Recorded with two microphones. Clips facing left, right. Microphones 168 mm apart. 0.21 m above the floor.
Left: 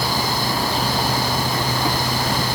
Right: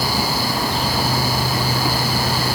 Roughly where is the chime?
I don't hear a chime.